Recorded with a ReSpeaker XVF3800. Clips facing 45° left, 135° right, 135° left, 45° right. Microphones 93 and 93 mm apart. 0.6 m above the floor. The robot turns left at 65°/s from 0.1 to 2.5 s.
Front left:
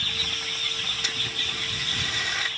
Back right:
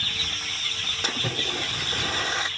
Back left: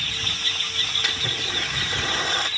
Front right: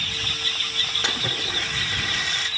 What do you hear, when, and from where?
1.0 s a splash: 105° right; by 2.5 s 165° left